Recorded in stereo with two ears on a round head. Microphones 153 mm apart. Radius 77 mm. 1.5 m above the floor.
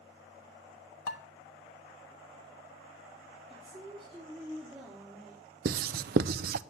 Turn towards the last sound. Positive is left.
turn(degrees=-60)  # may be behind; listen again after turning